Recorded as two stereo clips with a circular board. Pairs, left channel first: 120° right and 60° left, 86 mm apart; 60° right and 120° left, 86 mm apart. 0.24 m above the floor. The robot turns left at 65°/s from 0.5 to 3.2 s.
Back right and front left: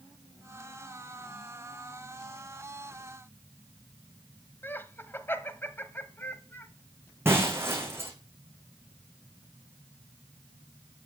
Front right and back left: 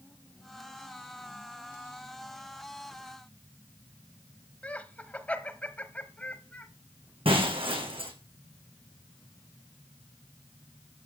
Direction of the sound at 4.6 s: 110° right.